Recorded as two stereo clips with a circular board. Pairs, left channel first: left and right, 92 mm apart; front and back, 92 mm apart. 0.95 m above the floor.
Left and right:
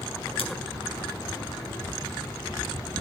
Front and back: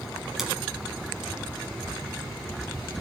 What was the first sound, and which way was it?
Scissors, 95° left.